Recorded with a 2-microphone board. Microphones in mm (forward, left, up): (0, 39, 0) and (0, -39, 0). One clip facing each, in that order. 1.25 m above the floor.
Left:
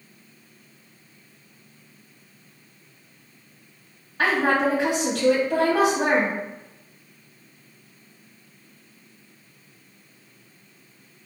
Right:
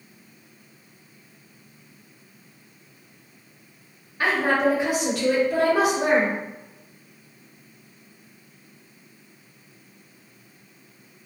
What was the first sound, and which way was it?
A woman speaking, 80° left.